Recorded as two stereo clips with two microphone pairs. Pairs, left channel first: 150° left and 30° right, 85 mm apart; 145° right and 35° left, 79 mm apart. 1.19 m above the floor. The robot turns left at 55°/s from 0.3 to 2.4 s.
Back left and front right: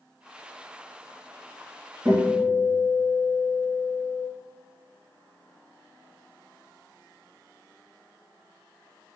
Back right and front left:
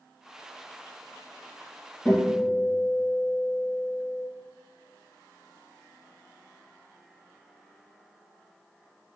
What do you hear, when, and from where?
2.0 s a guitar: 75° right, 1.5 m; by 4.2 s 95° right, 1.5 m